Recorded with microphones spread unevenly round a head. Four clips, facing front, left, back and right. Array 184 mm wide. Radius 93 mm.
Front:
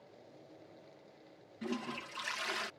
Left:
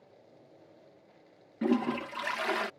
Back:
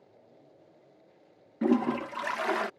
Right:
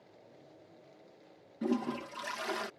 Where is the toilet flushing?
165° left.